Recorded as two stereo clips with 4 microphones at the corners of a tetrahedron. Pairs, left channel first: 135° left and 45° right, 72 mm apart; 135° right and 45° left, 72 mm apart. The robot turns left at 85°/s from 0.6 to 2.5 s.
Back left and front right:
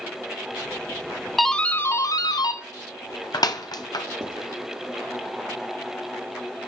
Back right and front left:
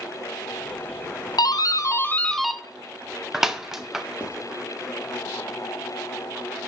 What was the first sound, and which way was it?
A doorbell, 135° right.